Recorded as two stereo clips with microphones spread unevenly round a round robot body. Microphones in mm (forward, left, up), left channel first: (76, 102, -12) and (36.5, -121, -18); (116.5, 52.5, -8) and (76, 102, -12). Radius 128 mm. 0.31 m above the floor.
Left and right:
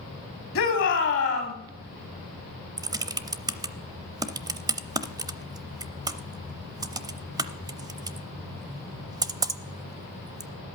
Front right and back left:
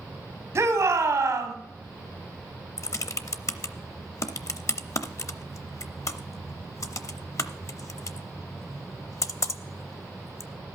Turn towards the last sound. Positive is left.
turn(degrees=-35)